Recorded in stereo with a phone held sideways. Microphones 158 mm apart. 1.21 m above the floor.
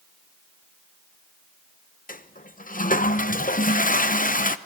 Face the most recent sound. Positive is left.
turn(degrees=60)  # may be behind; listen again after turning